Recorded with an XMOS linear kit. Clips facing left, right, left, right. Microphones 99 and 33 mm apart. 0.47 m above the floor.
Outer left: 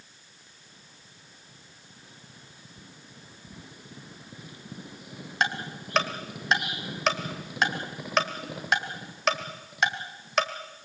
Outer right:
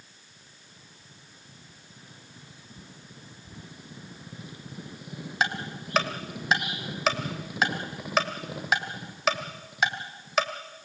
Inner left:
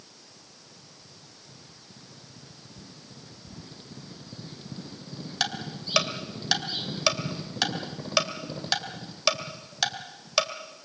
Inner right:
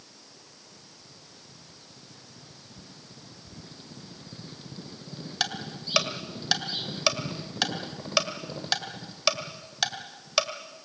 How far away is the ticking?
About 1.8 m.